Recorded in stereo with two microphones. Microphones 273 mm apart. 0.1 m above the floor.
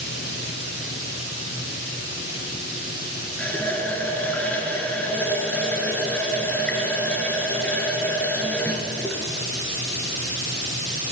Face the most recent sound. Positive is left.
turn(degrees=5)  # may be behind; listen again after turning